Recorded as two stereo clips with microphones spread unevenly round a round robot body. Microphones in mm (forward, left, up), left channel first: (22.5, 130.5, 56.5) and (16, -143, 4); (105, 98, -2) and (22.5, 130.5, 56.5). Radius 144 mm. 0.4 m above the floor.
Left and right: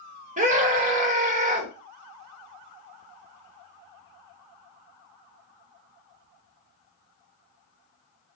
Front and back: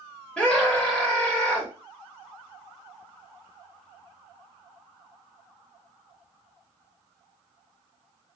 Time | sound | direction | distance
0.4 | a scream | 50° right | 1.0 m